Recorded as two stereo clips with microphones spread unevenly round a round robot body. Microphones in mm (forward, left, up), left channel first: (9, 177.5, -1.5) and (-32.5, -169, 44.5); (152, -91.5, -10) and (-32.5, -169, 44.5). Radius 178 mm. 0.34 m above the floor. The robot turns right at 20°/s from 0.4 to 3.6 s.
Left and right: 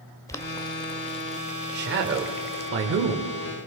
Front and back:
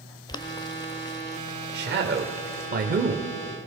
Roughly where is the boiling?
Ahead.